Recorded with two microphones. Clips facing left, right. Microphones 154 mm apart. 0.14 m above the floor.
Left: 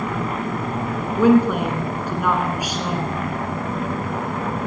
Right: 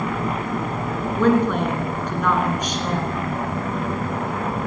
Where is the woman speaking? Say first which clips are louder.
Left 3 dB; 10° left (ahead or behind), 1.8 m.